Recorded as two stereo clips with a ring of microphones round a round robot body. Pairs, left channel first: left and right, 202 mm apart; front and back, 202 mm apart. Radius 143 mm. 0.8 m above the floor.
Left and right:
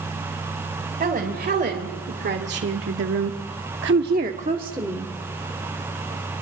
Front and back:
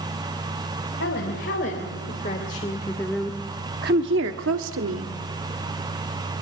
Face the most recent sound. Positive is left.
turn(degrees=-175)